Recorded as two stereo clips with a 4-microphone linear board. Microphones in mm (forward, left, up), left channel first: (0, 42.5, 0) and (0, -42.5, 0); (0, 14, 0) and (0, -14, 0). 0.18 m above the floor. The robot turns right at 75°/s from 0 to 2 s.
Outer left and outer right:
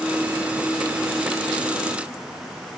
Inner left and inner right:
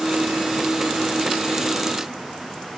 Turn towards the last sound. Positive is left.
No sound to turn to.